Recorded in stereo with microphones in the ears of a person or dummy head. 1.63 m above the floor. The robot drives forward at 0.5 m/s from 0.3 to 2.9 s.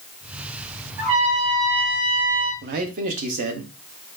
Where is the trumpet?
20° right (ahead or behind), 1.8 m; by 2.5 s 15° right (ahead or behind), 2.5 m.